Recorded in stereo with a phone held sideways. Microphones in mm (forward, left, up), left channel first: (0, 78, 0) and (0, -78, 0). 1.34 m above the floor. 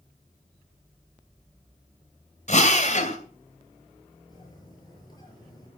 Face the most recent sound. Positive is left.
turn(degrees=30)  # may be behind; listen again after turning